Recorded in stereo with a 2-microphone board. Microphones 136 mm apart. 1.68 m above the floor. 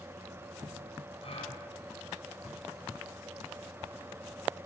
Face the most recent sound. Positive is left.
turn(degrees=50)  # may be behind; listen again after turning